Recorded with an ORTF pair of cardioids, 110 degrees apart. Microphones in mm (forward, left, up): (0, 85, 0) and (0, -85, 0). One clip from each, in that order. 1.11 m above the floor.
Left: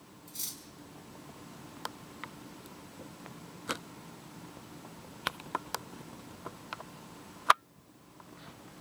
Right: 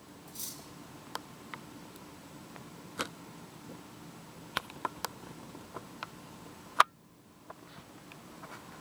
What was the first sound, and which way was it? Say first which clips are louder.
Cutlery clinking: left 3 dB; 20° left.